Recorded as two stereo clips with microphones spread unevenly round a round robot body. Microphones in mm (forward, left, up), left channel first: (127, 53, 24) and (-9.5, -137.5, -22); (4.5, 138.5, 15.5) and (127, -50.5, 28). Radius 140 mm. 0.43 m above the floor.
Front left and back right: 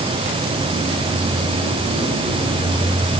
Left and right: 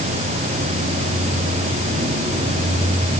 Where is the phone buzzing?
No phone buzzing in this recording.